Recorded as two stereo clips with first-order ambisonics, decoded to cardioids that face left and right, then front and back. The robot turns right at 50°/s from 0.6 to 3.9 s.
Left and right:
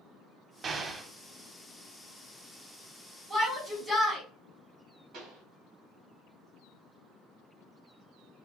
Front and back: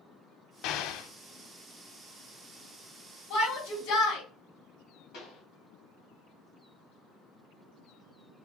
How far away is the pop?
About 2.5 m.